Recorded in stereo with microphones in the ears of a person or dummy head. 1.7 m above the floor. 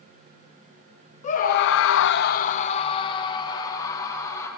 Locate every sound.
1.2 s a scream: 40° left (ahead or behind), 0.8 m; by 4.5 s 20° left (ahead or behind), 2.5 m